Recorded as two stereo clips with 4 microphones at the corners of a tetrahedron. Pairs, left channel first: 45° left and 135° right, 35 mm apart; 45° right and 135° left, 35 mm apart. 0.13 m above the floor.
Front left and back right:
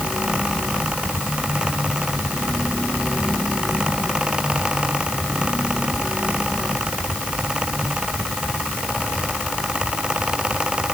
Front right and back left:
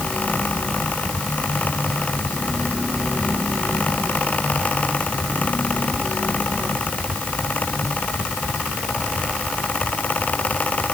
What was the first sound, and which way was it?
Only background noise.